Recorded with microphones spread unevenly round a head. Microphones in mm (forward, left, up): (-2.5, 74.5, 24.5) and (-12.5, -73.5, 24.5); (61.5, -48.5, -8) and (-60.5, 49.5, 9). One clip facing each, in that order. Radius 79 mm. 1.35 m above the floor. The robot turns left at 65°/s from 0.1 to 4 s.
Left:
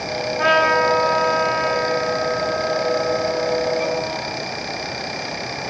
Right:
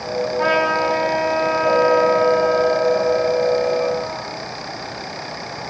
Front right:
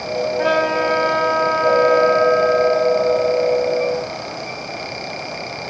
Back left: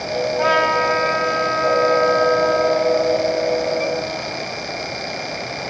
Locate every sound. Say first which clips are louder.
0.4 s a trumpet: left 3 dB, front right 1 dB; 45° left, 5 m; by 4.5 s 170° left, 5 m